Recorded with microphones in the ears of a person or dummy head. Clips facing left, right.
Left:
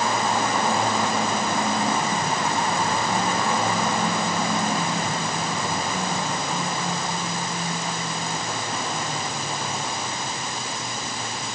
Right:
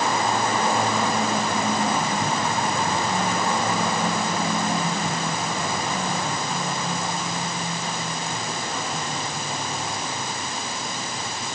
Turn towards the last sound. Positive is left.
No sound to turn to.